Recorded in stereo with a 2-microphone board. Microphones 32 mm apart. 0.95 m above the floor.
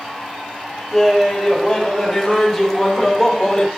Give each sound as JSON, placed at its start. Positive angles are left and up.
{"t": 0.9, "sound": "laughter", "side_deg": -5, "distance_m": 4.5}